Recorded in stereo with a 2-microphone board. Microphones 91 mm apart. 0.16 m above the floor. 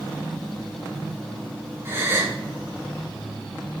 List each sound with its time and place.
1.9 s a gasp: 25° right (ahead or behind), 1.3 m